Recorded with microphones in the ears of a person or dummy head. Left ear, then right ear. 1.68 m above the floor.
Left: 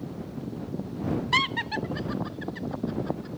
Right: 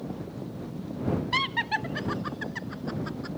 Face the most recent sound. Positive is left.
turn(degrees=-45)  # may be behind; listen again after turning